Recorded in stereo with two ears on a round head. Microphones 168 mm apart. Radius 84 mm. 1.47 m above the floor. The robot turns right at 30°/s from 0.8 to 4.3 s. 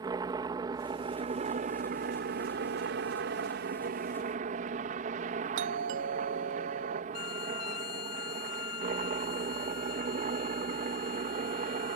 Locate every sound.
0.0 s a helicopter: 155° right; by 12.0 s 50° right
5.6 s a doorbell: 70° right (ahead or behind)
7.1 s a violin: 65° left (ahead or behind)